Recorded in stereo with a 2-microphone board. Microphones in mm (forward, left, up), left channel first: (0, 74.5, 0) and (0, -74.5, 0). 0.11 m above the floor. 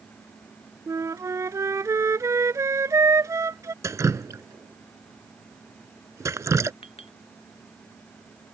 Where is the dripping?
20° right (ahead or behind).